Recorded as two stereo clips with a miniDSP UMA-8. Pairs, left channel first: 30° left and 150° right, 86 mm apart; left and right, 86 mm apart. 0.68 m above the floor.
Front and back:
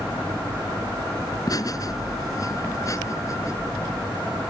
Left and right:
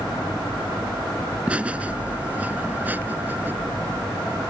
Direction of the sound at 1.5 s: 15° right.